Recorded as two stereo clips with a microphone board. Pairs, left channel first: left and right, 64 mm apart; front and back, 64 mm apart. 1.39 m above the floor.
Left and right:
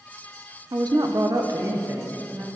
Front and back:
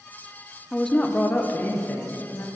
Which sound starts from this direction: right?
A woman speaking, at 0.7 s.